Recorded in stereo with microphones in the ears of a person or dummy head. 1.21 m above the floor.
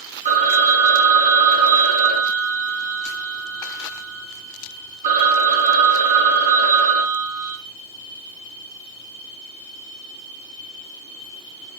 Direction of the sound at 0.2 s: 40° right (ahead or behind).